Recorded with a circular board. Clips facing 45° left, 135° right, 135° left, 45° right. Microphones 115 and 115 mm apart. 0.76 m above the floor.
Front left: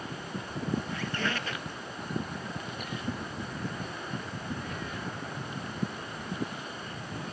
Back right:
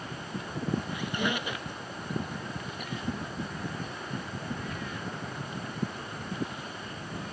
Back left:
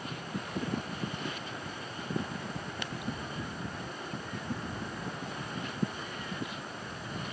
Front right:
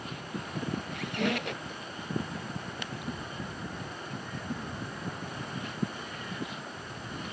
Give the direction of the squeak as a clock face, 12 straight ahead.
2 o'clock.